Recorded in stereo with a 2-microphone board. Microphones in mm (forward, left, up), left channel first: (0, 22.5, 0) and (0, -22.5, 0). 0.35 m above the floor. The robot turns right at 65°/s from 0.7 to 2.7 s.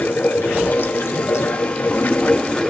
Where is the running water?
40° left, 1.7 m; by 2.7 s 170° left, 1.7 m.